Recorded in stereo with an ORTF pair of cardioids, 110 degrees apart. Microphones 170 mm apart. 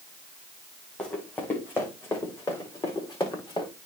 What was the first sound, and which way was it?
Running footsteps, 10° left.